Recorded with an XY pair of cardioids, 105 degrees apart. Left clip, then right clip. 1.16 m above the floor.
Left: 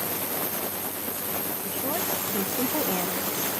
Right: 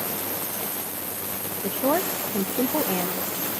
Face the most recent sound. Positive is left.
turn(degrees=-5)